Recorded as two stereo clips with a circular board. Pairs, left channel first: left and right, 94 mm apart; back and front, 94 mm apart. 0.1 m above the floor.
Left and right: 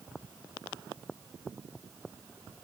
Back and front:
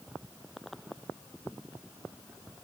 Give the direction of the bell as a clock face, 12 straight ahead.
I don't hear a bell.